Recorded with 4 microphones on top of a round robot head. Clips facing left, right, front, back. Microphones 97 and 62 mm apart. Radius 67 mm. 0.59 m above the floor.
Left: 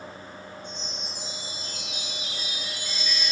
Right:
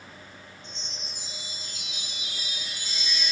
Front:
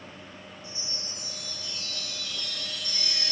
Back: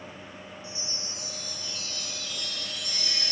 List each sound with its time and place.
0.6 s a chime: 160° right, 2 m